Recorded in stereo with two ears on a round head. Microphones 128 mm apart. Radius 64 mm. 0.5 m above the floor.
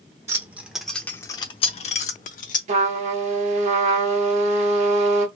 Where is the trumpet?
50° right (ahead or behind), 0.8 m.